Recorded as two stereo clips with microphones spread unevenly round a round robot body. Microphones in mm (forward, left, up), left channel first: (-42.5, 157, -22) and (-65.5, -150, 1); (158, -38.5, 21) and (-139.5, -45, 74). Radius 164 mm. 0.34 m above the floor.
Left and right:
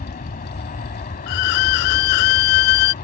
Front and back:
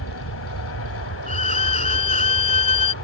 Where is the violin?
75° left.